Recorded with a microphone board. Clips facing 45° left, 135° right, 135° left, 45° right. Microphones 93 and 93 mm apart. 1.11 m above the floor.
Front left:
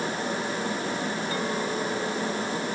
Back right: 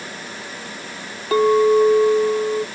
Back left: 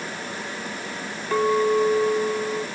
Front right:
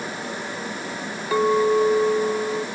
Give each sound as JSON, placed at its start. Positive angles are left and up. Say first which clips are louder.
{"t": 1.3, "sound": "a clink", "louder": "back right 20 dB, front right 2 dB", "azimuth_deg": -130}